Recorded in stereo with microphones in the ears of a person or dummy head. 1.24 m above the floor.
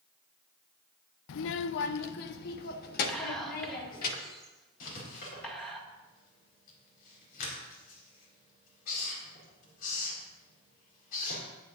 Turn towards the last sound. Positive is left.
turn(degrees=55)  # may be behind; listen again after turning